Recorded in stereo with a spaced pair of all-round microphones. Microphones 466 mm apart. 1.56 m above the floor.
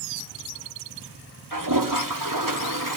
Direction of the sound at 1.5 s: 45° right (ahead or behind).